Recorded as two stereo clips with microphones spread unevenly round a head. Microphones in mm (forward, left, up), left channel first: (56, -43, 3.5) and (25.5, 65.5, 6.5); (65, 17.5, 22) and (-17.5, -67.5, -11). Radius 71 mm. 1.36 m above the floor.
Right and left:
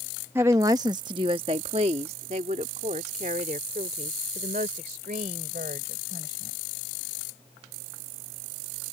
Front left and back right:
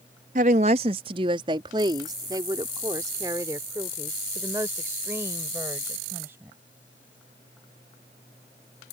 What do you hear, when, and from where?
0.3 s a woman speaking: straight behind; by 6.5 s 145° left